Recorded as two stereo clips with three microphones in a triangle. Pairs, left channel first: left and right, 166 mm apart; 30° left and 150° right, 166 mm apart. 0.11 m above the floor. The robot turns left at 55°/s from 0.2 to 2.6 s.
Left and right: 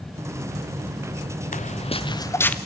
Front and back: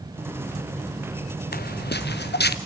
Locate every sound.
1.5 s footsteps: 50° left, 0.5 m; by 2.6 s 10° left, 1.0 m